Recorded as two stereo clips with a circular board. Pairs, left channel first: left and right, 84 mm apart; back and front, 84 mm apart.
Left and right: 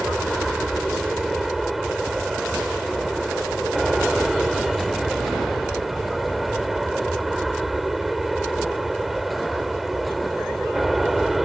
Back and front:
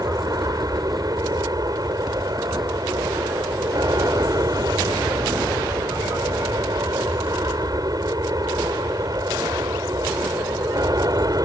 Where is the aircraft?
5° right.